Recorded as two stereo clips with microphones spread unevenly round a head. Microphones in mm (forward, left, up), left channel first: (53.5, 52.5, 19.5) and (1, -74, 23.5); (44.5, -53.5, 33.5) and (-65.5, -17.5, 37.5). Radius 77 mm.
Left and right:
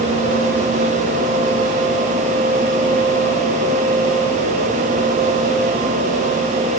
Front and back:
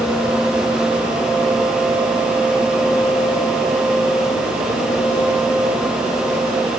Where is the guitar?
I don't hear a guitar.